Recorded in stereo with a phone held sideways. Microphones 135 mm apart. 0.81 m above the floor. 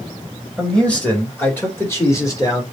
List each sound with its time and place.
0.6 s a man speaking: 5° left (ahead or behind), 2 m; by 2.6 s 25° left (ahead or behind), 2.5 m